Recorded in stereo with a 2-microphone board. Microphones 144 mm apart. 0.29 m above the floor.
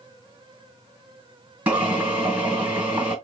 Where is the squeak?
No squeak in this recording.